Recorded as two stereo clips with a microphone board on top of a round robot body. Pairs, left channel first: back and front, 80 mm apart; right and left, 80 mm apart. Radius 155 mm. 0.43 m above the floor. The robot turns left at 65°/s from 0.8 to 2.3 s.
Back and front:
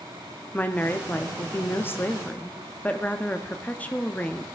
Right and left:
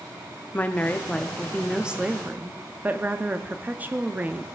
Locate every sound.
0.5 s a woman speaking: 135° right, 0.8 m; by 4.5 s 130° left, 0.8 m